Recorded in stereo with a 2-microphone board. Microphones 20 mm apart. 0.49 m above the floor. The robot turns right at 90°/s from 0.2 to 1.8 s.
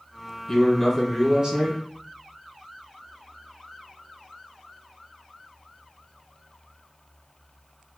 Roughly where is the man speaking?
Behind left.